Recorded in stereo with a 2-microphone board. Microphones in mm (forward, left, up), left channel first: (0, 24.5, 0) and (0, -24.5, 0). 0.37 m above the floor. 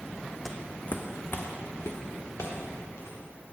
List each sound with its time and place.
0.5 s footsteps: 5° left (ahead or behind), 0.8 m; by 3.2 s 70° left (ahead or behind), 3 m